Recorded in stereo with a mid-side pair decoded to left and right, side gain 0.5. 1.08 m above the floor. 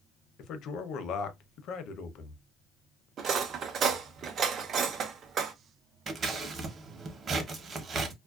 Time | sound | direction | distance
0.4 | a man speaking | 65° left | 0.7 m
3.2 | cutlery clinking | 55° right | 0.6 m
6.1 | scissors | 45° right | 0.8 m